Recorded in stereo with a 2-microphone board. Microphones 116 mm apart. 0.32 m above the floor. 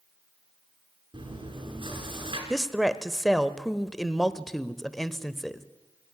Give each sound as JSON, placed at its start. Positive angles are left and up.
{"t": 1.1, "sound": "chewing", "side_deg": -50, "distance_m": 5.0}
{"t": 2.5, "sound": "a woman speaking", "side_deg": 5, "distance_m": 0.9}